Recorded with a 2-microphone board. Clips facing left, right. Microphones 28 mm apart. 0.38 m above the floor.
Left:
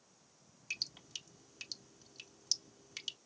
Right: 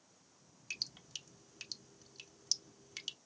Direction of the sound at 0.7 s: Centre (ahead or behind).